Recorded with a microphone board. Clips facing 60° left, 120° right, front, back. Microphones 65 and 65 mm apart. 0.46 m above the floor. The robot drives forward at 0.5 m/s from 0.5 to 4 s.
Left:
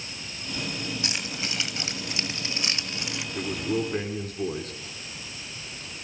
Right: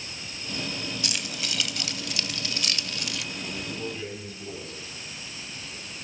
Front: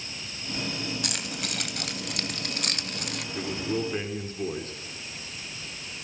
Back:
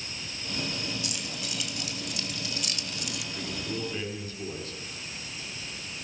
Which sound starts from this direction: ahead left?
A man speaking, at 3.4 s.